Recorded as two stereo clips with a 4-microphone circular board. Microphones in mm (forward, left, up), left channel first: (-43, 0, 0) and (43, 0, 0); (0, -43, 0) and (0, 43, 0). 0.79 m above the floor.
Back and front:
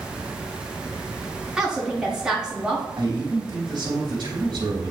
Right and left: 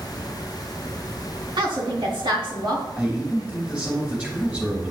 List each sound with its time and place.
1.6 s a woman speaking: 80° left, 2 m
3.0 s a man speaking: 15° left, 2.5 m